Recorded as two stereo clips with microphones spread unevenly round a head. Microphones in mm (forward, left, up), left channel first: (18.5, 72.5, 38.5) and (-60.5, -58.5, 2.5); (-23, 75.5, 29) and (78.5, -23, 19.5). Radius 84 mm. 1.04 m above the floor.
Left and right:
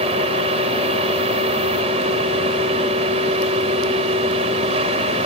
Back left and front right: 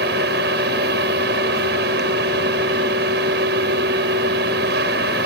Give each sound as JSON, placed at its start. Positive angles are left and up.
{"t": 0.0, "sound": "a fan", "azimuth_deg": -65}